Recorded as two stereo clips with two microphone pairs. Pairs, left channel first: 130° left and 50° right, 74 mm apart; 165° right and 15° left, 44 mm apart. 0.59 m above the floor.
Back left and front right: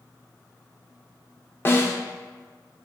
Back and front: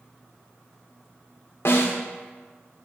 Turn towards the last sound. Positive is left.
turn(degrees=180)